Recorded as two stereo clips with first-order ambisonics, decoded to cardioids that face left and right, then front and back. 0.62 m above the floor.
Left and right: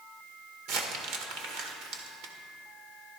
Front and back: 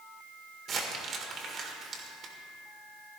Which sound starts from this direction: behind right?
Crumpling, at 0.7 s.